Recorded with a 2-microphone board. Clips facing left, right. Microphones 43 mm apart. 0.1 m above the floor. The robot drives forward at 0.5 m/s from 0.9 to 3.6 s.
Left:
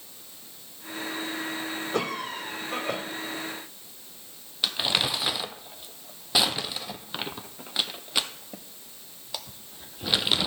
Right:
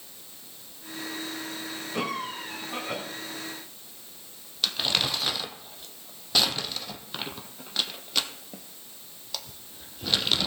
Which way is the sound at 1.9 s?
65° left (ahead or behind).